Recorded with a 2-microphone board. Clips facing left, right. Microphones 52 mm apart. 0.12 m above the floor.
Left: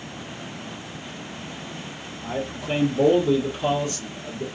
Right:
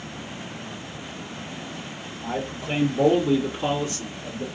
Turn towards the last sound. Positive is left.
turn(degrees=-20)  # may be behind; listen again after turning